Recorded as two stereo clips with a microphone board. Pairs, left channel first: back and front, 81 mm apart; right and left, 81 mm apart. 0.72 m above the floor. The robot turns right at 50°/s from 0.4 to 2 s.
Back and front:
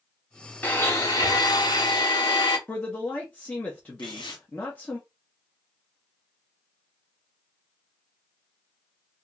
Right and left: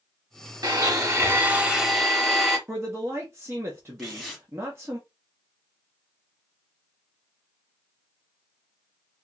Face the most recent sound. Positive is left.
turn(degrees=180)